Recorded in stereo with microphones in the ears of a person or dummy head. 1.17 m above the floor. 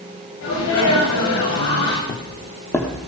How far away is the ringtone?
I don't hear a ringtone.